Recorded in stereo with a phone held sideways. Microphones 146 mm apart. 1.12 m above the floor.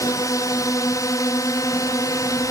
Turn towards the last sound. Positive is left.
turn(degrees=25)  # may be behind; listen again after turning